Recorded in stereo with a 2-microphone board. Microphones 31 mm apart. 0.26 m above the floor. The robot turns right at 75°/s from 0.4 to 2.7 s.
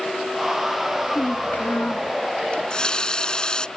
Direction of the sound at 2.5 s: 40° left (ahead or behind).